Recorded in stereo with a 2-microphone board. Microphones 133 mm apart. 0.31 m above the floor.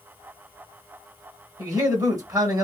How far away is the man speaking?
About 1.1 m.